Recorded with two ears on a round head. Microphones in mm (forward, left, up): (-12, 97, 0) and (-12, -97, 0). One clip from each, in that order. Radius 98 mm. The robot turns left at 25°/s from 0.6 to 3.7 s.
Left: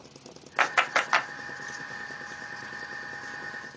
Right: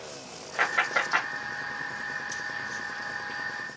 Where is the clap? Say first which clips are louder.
Left 1 dB; 40° left (ahead or behind), 1.2 m; by 1.3 s 55° left (ahead or behind), 1.2 m.